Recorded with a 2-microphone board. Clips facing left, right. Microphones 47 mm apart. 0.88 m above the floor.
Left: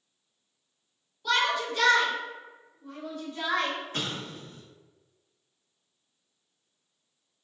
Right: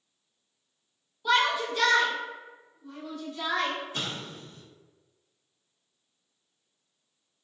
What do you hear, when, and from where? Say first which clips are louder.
1.2 s a shout: right 2 dB; 20° right (ahead or behind), 0.7 m; by 3.8 s 40° left (ahead or behind), 1.2 m
3.9 s an explosion: left 1 dB; 55° left (ahead or behind), 1.0 m